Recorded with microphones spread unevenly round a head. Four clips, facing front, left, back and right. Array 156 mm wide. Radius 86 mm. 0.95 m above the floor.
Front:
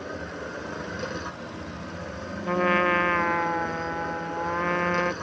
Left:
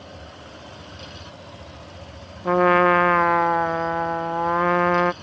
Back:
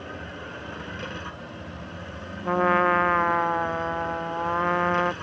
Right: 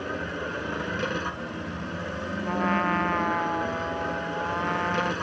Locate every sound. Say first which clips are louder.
0.0 s a machine running: right 10 dB, front 3 dB; 65° right
2.5 s a trumpet: left 10 dB, back 2 dB; 95° left